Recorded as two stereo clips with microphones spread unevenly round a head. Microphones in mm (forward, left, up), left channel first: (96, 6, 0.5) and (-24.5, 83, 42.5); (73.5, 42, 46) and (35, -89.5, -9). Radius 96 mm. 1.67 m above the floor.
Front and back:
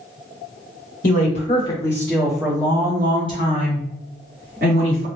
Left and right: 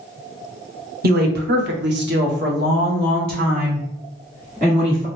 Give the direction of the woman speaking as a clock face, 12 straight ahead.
3 o'clock.